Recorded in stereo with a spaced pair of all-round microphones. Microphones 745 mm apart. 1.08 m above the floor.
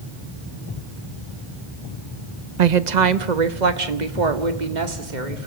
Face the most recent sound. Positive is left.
turn(degrees=-75)  # may be behind; listen again after turning